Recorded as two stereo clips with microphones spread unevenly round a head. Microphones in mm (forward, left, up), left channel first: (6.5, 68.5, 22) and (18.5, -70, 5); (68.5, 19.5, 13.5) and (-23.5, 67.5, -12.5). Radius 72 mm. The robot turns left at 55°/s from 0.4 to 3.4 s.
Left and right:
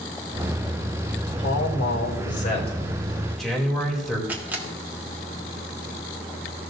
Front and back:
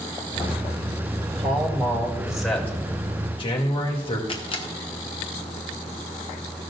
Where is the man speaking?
120° left, 3 m; by 4.2 s 5° left, 3 m.